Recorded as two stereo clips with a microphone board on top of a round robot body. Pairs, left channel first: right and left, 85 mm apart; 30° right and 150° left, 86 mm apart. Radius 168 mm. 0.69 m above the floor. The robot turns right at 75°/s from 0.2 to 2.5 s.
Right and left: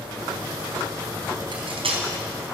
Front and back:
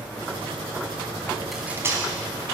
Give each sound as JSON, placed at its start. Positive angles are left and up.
{"t": 1.5, "sound": "cutlery clinking", "azimuth_deg": 60, "distance_m": 4.0}